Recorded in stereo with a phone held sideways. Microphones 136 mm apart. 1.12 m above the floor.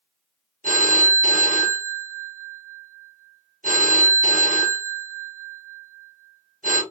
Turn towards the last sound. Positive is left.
turn(degrees=-75)  # may be behind; listen again after turning